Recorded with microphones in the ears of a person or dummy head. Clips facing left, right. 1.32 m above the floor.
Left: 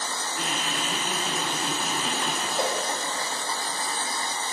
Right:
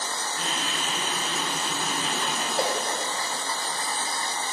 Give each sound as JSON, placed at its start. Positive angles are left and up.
{"t": 0.3, "sound": "laughter", "side_deg": 20, "distance_m": 8.0}
{"t": 2.5, "sound": "a whoosh", "side_deg": 0, "distance_m": 5.0}